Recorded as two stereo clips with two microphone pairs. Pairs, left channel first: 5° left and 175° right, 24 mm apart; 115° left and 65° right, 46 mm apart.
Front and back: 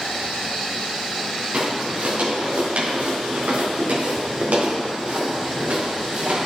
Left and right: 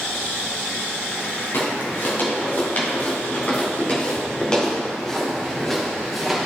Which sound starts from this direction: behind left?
Footsteps, at 1.5 s.